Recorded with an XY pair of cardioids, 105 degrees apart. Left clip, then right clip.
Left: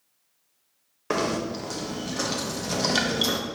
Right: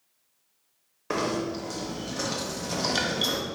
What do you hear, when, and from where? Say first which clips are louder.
1.1 s knocking: left 2 dB; 20° left, 0.7 m